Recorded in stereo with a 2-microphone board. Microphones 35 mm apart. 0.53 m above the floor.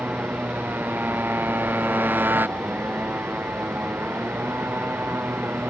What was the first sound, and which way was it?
A motorcycle, 60° right (ahead or behind).